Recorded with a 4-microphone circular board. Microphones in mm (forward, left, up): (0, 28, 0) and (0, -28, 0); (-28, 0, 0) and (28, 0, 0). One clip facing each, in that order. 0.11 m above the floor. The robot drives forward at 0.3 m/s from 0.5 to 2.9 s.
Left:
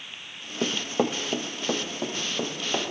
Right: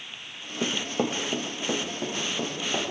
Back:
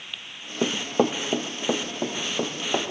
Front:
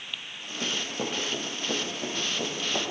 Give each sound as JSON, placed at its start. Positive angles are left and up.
{"t": 0.6, "sound": "running footsteps", "azimuth_deg": 160, "distance_m": 0.9}